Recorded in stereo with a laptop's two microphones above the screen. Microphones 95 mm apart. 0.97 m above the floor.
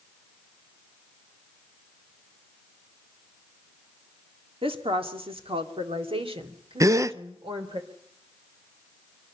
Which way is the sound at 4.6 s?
75° right (ahead or behind).